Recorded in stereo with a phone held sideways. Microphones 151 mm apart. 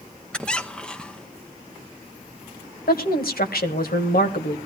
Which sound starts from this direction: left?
A woman speaking, at 2.9 s.